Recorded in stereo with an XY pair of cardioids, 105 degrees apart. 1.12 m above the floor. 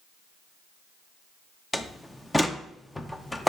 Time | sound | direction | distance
1.7 | a door slam | 10° left | 0.6 m